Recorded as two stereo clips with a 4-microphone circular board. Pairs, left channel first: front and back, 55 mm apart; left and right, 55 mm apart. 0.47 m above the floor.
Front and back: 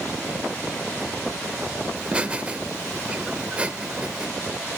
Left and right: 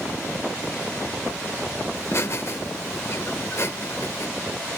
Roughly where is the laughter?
Left.